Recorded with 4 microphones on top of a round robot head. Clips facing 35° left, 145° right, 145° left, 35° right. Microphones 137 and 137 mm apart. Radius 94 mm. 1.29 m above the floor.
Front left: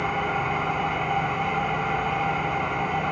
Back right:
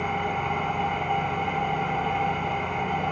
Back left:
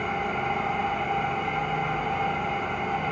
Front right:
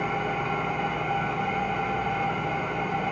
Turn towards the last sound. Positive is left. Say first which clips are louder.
# front left 1 dB, even
turn(degrees=-55)